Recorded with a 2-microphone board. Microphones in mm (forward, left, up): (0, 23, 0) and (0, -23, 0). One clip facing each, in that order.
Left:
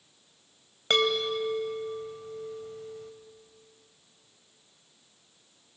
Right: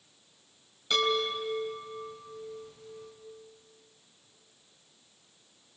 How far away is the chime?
About 3.5 m.